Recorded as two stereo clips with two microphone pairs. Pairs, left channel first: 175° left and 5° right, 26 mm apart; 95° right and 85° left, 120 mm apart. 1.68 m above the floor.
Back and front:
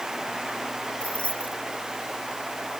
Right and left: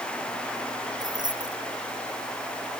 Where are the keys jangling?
140° left.